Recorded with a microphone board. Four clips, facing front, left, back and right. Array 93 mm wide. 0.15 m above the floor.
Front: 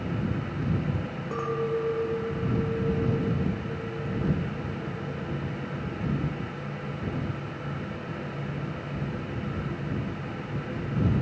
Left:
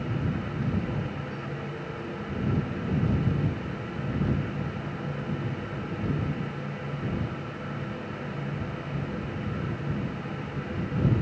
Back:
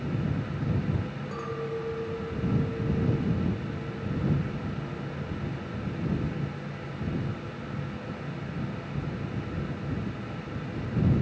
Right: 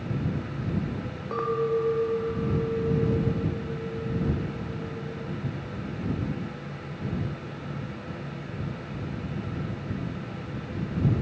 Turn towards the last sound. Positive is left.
turn(degrees=-70)